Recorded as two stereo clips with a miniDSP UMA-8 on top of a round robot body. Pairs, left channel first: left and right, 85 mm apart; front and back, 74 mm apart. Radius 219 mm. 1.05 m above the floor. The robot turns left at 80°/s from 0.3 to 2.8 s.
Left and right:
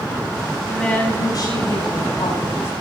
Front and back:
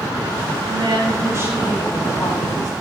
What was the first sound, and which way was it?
A woman speaking, 175° right.